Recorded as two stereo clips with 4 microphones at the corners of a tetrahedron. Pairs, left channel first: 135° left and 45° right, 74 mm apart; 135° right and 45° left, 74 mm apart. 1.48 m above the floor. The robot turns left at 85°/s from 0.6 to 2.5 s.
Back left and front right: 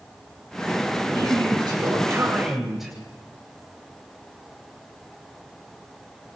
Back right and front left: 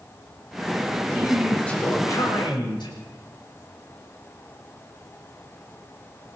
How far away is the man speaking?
About 8.5 m.